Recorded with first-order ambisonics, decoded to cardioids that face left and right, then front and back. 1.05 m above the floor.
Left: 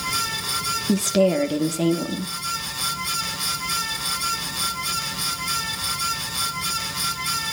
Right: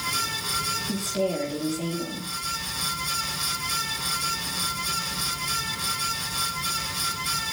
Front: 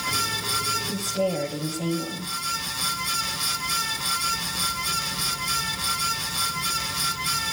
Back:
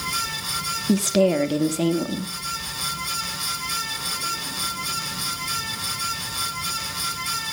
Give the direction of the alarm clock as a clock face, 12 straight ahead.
No alarm clock in this recording.